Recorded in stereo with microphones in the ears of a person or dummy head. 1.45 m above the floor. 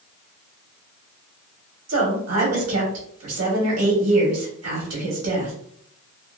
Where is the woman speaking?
80° right, 1.2 m.